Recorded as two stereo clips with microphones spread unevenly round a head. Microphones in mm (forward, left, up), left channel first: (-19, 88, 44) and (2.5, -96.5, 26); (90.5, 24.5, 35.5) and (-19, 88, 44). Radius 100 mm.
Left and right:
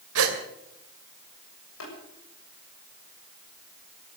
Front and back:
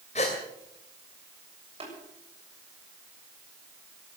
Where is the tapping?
110° left, 7.5 m.